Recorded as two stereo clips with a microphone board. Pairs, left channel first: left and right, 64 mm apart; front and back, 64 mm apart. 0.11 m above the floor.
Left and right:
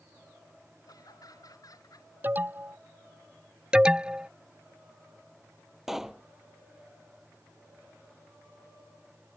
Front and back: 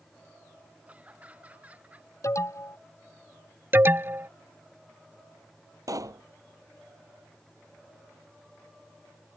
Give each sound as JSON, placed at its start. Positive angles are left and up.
{"t": 0.9, "sound": "laughter", "azimuth_deg": 115}
{"t": 2.2, "sound": "an alarm", "azimuth_deg": -30}
{"t": 3.7, "sound": "an alarm", "azimuth_deg": -155}
{"t": 5.9, "sound": "a pop", "azimuth_deg": -175}